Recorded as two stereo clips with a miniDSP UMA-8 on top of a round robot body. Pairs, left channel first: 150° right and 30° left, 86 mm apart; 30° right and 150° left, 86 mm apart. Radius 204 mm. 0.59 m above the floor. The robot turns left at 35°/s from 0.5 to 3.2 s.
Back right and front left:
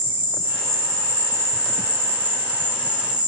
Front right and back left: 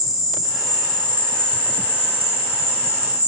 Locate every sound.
0.0 s an insect: 65° left, 1.8 m; by 3.3 s 30° right, 1.8 m